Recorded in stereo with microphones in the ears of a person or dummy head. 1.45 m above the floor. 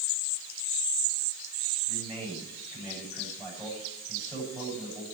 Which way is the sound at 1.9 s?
Centre (ahead or behind).